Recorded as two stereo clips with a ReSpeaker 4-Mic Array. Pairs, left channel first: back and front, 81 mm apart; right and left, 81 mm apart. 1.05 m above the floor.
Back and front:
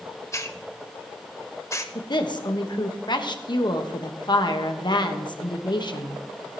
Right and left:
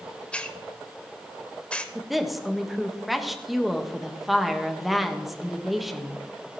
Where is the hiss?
155° right, 0.9 m.